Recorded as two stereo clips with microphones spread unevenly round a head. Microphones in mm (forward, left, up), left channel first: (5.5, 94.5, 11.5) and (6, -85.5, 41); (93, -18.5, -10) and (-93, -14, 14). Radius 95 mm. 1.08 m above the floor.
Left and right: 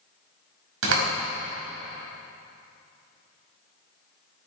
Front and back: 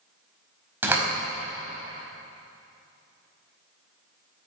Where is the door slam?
105° right, 5 m.